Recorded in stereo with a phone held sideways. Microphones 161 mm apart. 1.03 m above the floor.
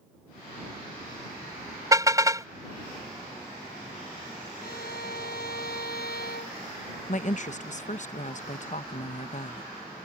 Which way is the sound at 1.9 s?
20° right (ahead or behind).